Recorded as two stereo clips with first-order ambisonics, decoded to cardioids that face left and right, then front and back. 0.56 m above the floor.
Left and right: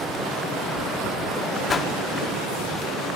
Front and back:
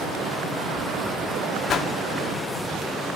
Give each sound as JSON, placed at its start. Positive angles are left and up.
{"t": 1.7, "sound": "a whoosh", "azimuth_deg": 30, "distance_m": 0.9}